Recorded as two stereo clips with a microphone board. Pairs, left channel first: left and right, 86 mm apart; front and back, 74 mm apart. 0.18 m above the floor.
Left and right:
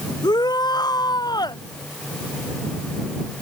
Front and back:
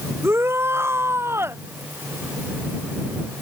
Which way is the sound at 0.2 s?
125° left.